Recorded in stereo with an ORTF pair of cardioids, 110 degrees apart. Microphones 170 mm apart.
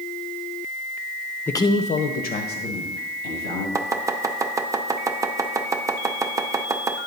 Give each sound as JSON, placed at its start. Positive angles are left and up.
{"t": 1.5, "sound": "a man speaking", "azimuth_deg": 10, "distance_m": 0.6}
{"t": 3.8, "sound": "chopping", "azimuth_deg": -20, "distance_m": 0.5}